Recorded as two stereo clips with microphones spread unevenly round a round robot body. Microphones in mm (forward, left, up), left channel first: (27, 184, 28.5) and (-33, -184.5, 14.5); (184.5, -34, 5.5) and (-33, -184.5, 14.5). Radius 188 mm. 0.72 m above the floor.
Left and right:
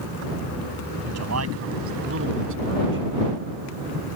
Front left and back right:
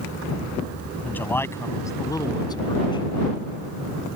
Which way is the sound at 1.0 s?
50° right.